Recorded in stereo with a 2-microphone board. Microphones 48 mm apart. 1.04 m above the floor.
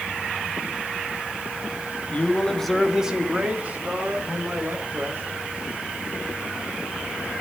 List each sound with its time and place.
2.1 s a man speaking: 30° left (ahead or behind), 1.8 m; by 5.4 s 55° right (ahead or behind), 5 m